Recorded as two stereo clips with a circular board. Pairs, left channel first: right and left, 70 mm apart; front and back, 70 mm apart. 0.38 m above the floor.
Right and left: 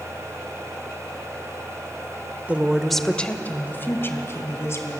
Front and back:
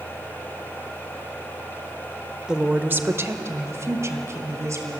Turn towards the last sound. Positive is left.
turn(degrees=-135)